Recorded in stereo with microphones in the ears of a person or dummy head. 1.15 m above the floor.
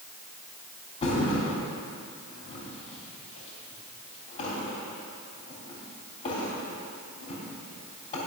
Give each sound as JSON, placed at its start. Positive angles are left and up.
{"t": 1.0, "sound": "a thud", "side_deg": 35, "distance_m": 3.0}